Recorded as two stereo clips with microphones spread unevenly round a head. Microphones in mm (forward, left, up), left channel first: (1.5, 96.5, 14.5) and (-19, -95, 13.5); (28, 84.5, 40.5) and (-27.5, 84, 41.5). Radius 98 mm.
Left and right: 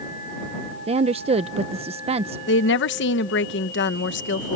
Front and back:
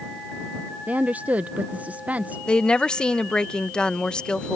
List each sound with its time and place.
0.9 s a woman speaking: 130° right
2.5 s a woman speaking: 75° left